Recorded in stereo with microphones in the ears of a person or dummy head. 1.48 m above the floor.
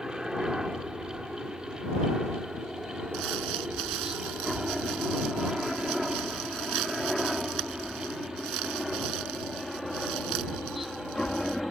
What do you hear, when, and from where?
0.0 s a helicopter: 5° right (ahead or behind); by 11.7 s centre (ahead or behind)
3.1 s crumpling: 80° right